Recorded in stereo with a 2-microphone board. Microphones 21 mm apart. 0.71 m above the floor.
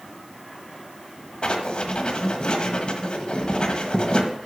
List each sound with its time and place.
1.4 s writing: 50° left (ahead or behind), 1.3 m